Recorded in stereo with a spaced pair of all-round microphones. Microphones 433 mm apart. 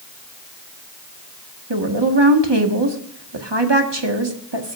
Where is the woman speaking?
70° right (ahead or behind), 1.7 m.